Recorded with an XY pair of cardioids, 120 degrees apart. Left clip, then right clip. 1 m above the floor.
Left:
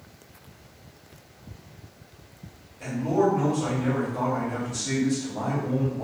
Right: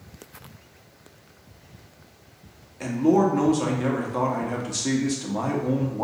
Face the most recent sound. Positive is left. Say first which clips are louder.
# right 3 dB
turn(degrees=-65)